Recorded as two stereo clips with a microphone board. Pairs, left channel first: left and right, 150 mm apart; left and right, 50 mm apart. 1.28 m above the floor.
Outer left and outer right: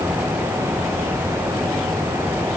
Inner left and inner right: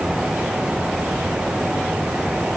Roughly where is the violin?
I don't hear a violin.